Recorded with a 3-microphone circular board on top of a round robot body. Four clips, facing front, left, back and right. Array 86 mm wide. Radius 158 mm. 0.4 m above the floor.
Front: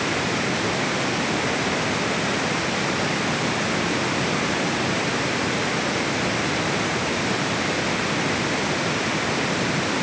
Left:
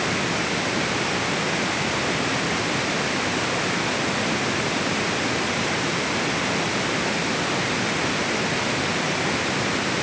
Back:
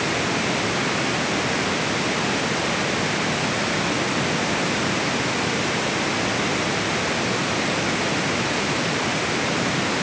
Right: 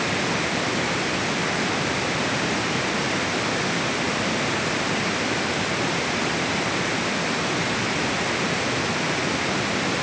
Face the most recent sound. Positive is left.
No sound to turn to.